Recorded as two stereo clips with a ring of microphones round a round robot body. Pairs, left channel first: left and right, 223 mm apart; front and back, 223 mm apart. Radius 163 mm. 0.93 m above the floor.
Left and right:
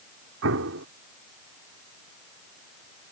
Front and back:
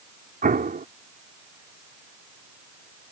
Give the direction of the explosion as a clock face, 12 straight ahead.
4 o'clock.